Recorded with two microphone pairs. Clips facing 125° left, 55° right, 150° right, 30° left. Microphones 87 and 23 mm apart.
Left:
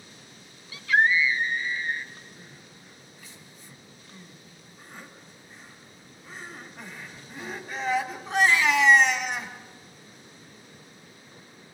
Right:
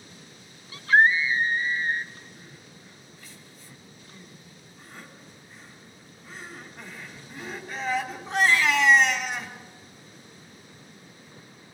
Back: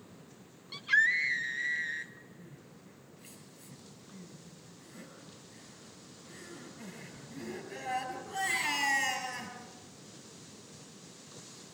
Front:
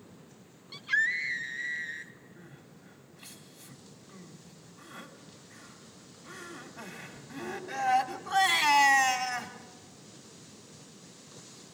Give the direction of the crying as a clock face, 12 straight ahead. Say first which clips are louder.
Right 1 dB, front 1 dB; 11 o'clock.